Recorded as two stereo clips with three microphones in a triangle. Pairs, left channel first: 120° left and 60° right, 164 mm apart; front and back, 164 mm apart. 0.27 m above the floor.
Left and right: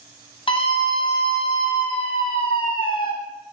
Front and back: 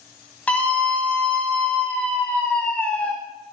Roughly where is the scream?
Left.